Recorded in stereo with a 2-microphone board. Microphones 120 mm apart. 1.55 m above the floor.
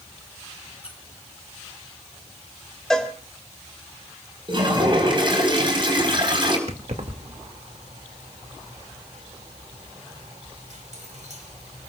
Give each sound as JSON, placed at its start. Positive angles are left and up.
{"t": 0.8, "sound": "a squeak", "side_deg": -10, "distance_m": 6.0}
{"t": 2.9, "sound": "a cowbell", "side_deg": 5, "distance_m": 2.5}
{"t": 4.5, "sound": "a toilet flushing", "side_deg": -40, "distance_m": 4.5}
{"t": 6.7, "sound": "keys jangling", "side_deg": -70, "distance_m": 2.0}